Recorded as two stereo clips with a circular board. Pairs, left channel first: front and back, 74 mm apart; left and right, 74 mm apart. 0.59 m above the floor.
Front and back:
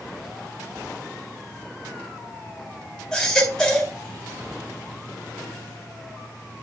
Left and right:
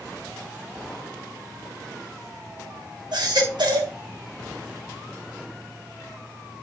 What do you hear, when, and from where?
3.1 s a baby crying: 85° right, 3 m